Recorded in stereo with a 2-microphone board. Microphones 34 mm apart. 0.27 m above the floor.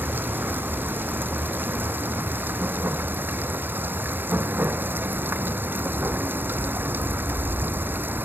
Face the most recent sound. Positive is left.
turn(degrees=-80)